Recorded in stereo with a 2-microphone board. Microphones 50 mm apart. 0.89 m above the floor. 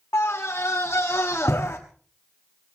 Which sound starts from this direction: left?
A scream, at 0.1 s.